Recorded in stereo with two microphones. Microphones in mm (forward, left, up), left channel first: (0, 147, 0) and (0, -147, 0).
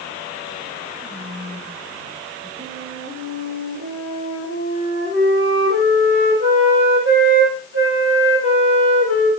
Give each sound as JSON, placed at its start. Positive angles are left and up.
{"t": 1.0, "sound": "whispering", "side_deg": -25, "distance_m": 6.0}
{"t": 2.6, "sound": "a flute", "side_deg": -45, "distance_m": 4.5}